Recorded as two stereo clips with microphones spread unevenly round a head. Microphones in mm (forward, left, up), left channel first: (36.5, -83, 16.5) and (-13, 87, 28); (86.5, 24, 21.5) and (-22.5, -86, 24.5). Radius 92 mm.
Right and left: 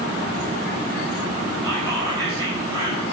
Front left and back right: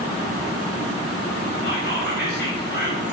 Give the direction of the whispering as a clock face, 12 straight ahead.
11 o'clock.